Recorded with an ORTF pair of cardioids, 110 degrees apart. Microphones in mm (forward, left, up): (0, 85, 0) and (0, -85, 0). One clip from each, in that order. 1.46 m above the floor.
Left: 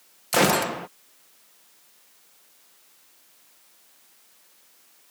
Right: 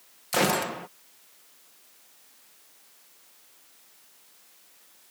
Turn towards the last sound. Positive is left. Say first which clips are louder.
# left 4 dB
turn(degrees=25)